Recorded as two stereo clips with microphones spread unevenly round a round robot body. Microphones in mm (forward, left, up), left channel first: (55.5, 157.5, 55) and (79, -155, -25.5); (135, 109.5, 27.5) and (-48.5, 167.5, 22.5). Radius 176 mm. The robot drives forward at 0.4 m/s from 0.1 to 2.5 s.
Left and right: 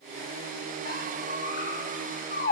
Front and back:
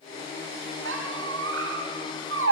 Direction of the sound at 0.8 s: 155° left.